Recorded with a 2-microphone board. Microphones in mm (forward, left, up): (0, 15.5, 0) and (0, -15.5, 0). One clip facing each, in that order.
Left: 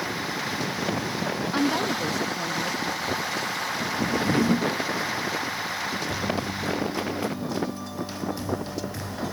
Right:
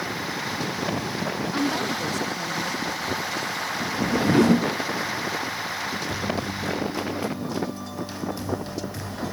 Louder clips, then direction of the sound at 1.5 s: Left 2 dB; 15° left (ahead or behind).